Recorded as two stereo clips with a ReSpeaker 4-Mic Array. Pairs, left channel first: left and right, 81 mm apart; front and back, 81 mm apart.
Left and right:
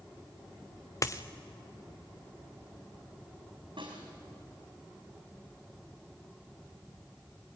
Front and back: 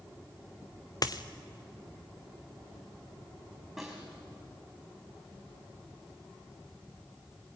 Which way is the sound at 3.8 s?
90° right.